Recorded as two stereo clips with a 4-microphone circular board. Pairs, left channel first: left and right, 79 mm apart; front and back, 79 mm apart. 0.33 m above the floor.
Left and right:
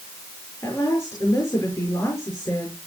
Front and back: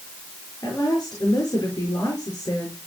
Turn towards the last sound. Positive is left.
turn(degrees=40)